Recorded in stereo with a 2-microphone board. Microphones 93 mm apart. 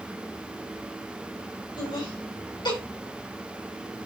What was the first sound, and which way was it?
Laughter, 55° left (ahead or behind).